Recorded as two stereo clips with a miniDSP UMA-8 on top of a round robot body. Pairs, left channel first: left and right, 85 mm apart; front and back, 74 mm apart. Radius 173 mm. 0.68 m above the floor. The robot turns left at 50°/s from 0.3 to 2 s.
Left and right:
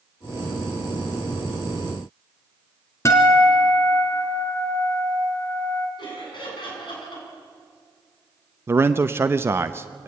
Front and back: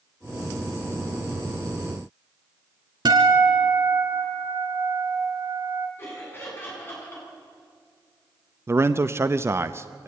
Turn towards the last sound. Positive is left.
turn(degrees=-140)